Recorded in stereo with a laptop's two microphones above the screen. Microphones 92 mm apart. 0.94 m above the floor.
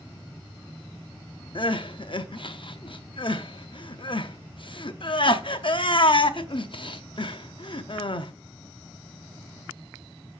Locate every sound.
1.6 s crying: 60° left (ahead or behind), 0.7 m